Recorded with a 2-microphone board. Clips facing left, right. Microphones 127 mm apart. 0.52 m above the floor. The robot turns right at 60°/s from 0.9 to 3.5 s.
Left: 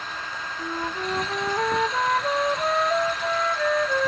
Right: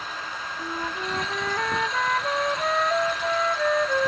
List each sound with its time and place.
0.6 s a flute: 10° left (ahead or behind), 0.5 m; by 4.1 s 5° right (ahead or behind), 0.5 m